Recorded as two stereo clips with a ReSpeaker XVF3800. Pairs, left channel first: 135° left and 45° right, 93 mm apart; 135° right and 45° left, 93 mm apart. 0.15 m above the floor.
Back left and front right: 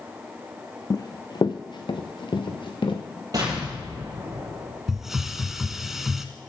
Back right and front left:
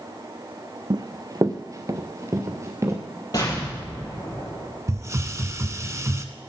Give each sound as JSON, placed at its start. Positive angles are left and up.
{"t": 0.9, "sound": "running footsteps", "azimuth_deg": 85, "distance_m": 0.6}
{"t": 3.3, "sound": "an explosion", "azimuth_deg": -90, "distance_m": 3.5}
{"t": 4.9, "sound": "a hiss", "azimuth_deg": 35, "distance_m": 0.6}